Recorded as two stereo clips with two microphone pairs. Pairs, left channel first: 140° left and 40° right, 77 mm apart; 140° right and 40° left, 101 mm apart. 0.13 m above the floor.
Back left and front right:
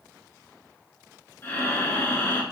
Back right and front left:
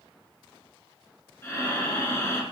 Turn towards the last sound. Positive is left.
turn(degrees=175)